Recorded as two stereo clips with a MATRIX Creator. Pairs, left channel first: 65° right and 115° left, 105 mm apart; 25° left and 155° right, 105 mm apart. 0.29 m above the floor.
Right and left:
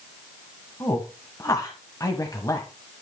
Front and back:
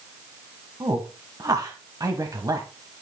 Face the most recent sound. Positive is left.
turn(degrees=-115)